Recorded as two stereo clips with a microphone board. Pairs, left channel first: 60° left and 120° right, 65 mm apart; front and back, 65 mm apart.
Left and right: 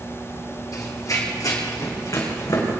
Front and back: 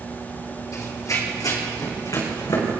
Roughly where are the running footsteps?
Ahead left.